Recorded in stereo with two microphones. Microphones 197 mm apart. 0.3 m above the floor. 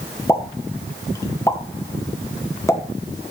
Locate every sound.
0.3 s a pop: 15° left (ahead or behind), 1.7 m